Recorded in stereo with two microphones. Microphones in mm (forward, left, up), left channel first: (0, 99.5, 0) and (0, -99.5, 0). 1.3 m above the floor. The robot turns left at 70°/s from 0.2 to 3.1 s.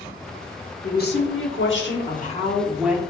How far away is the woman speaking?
About 1.1 m.